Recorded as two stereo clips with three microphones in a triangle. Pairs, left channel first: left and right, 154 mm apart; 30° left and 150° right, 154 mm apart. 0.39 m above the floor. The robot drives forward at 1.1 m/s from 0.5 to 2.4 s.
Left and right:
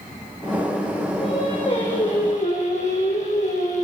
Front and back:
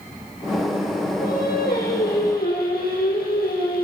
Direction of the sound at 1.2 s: 40° left.